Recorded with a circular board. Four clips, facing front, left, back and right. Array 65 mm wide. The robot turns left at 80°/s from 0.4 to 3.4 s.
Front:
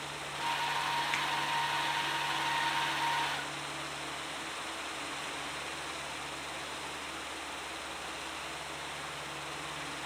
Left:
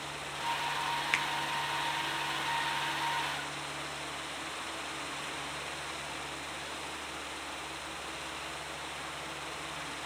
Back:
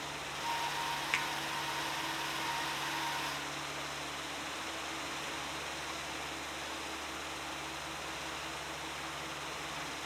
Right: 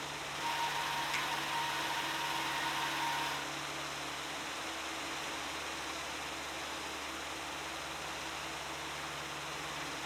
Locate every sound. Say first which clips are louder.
1.1 s a finger snap: left 5 dB, front 1 dB; 100° left, 0.8 m; by 1.2 s 90° left, 0.8 m